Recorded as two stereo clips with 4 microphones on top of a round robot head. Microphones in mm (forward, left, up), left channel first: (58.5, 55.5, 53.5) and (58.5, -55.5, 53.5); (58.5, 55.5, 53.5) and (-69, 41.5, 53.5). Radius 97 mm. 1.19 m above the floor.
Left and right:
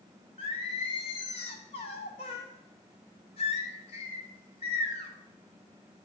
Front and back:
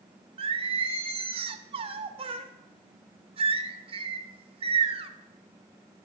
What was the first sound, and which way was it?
Singing, 140° left.